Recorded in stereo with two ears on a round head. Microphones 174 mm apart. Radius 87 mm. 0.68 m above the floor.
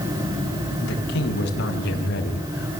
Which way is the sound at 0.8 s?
65° left (ahead or behind).